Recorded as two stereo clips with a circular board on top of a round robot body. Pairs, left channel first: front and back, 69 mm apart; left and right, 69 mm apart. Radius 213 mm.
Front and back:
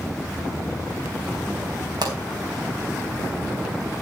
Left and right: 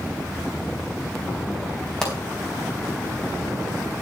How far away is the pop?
About 4 m.